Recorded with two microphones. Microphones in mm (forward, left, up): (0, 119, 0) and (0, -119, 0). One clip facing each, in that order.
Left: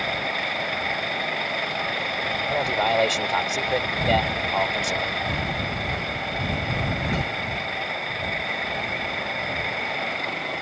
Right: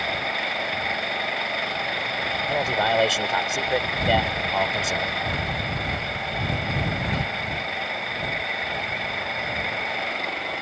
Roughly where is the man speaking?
Centre.